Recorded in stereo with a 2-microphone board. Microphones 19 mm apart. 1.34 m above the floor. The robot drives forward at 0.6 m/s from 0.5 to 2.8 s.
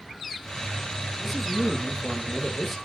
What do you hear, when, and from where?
1.2 s a man speaking: 15° left (ahead or behind), 2.5 m; by 2.8 s 20° left (ahead or behind), 1.7 m